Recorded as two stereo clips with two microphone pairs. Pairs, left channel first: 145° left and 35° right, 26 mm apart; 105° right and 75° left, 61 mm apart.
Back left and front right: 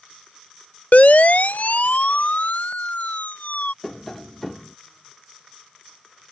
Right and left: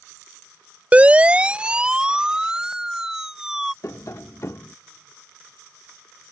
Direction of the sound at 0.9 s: 145° left.